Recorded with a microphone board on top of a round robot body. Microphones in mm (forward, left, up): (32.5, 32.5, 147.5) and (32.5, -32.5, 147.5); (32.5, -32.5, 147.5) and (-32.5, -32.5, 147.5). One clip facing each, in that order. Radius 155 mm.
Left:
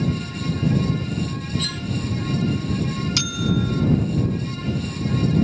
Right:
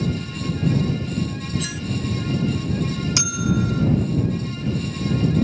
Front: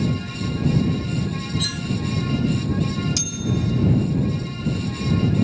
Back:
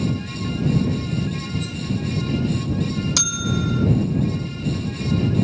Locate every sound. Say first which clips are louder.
1.6 s cutlery clinking: even, front 1 dB; 15° right
3.2 s a bell: right 1 dB, back 1 dB; 160° right